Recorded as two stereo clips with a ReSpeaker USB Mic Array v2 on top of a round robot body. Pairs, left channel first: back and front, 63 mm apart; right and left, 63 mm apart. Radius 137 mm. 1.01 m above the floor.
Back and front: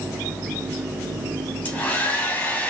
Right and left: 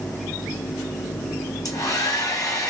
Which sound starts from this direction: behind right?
A hair dryer, at 1.6 s.